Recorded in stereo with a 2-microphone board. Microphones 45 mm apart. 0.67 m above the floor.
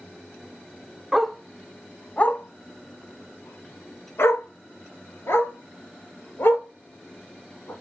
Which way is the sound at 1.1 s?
5° right (ahead or behind).